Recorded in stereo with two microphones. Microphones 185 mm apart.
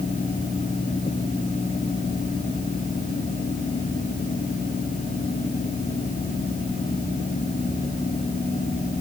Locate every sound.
Only background noise.